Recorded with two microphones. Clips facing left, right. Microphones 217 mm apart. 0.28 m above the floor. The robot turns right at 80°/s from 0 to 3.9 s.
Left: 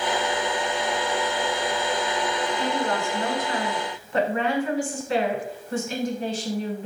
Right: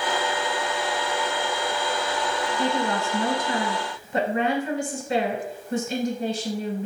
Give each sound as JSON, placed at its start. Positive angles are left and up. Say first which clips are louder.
{"t": 2.6, "sound": "a woman speaking", "louder": "right 3 dB", "side_deg": -15, "distance_m": 1.1}